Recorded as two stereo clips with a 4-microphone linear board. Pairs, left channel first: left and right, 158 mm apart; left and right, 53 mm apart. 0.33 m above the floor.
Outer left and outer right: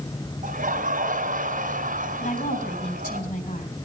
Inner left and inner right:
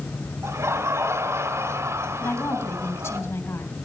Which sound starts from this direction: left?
A woman speaking, at 2.2 s.